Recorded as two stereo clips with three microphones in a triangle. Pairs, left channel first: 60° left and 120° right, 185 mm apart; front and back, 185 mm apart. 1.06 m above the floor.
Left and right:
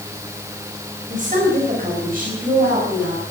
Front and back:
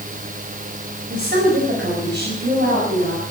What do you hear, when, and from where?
1.1 s a woman speaking: 160° right, 4 m; by 3.2 s 155° right, 6.5 m